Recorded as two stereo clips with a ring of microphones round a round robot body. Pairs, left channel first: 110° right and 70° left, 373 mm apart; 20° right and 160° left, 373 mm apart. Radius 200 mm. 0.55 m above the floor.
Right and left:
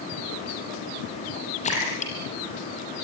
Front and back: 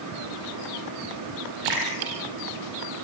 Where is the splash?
175° left, 7 m.